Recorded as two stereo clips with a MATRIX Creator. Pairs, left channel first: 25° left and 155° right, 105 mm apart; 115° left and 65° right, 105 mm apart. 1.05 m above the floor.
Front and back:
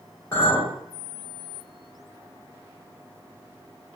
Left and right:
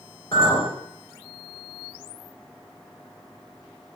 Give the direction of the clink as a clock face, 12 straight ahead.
9 o'clock.